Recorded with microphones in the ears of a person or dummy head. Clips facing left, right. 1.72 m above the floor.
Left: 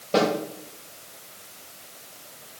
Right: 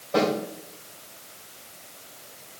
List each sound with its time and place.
0.1 s a snare drum: 40° left (ahead or behind), 4.5 m